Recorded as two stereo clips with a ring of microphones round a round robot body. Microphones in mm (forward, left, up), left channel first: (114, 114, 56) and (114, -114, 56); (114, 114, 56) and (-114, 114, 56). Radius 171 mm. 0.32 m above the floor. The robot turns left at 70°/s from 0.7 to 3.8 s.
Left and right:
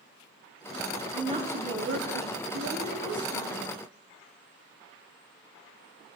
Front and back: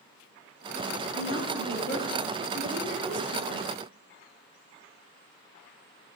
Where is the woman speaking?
20° right, 2.5 m; by 3.7 s 165° left, 2.5 m.